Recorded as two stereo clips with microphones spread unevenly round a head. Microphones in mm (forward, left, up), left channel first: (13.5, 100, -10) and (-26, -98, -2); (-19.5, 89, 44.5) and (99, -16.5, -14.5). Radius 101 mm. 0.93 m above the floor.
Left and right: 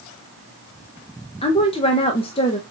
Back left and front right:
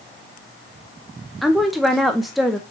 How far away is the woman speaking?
About 0.5 m.